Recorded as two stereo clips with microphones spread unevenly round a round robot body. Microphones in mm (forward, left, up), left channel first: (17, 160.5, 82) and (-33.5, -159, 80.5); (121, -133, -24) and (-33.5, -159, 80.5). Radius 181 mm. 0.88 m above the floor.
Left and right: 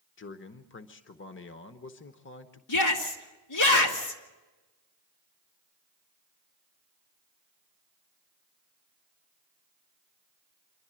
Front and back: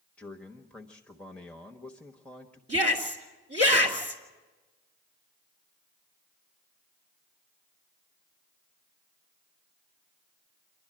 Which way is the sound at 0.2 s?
45° left.